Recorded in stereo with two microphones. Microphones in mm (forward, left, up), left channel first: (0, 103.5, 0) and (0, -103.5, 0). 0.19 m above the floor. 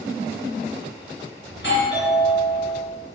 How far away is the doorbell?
About 3.5 m.